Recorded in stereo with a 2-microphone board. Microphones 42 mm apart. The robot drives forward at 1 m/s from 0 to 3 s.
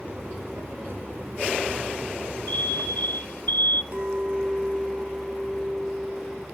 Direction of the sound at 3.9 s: 45° right (ahead or behind).